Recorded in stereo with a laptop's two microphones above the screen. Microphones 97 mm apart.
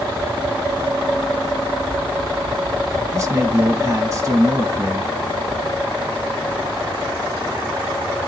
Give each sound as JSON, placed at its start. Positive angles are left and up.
{"t": 3.1, "sound": "a man speaking", "side_deg": -40, "distance_m": 1.0}